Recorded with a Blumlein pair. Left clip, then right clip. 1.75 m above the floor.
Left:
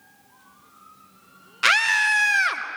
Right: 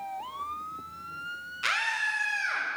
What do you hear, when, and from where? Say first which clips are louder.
1.6 s a scream: left 10 dB; 25° left, 1.1 m; by 2.6 s 50° left, 1.3 m